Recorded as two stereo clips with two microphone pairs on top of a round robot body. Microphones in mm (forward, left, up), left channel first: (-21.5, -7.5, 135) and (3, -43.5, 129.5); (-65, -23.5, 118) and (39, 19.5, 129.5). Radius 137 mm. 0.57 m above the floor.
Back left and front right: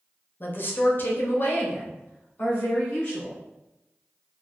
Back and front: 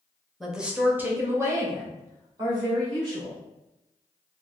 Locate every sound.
0.4 s a woman speaking: 120° left, 1.0 m; by 3.4 s 75° left, 2.5 m